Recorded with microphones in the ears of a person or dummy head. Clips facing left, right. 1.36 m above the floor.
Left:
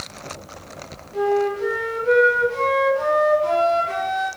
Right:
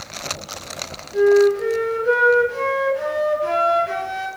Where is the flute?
15° right (ahead or behind), 0.9 m.